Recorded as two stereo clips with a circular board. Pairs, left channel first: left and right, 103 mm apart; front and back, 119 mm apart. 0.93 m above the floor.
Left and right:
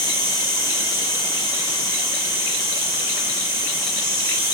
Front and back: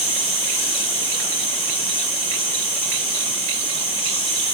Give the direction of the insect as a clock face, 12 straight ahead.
11 o'clock.